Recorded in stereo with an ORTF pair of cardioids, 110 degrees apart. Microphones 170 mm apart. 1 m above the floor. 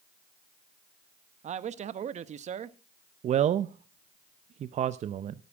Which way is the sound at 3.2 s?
45° right.